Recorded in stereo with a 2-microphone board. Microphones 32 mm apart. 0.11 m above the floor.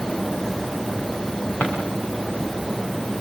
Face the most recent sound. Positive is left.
turn(degrees=85)